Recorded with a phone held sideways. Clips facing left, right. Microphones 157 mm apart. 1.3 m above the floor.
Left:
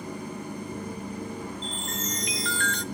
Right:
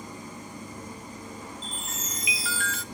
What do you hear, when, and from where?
0.0 s an engine running: 65° left (ahead or behind), 7.5 m
1.6 s a chime: 5° right (ahead or behind), 1.2 m